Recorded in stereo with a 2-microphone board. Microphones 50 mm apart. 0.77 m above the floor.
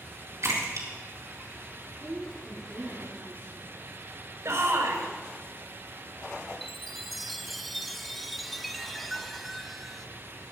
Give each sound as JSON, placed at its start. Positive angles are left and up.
{"t": 0.4, "sound": "a splash", "side_deg": -70, "distance_m": 4.0}
{"t": 2.0, "sound": "a woman speaking", "side_deg": -45, "distance_m": 8.5}
{"t": 4.5, "sound": "a shout", "side_deg": -75, "distance_m": 4.0}
{"t": 6.6, "sound": "a chime", "side_deg": 5, "distance_m": 0.7}